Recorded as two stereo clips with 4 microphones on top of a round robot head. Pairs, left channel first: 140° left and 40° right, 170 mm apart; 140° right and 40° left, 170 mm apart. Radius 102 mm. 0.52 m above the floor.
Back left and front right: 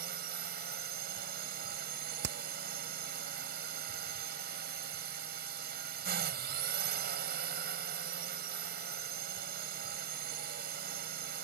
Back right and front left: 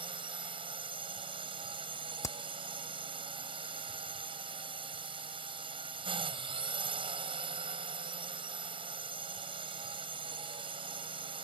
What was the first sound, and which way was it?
A drone, 20° right.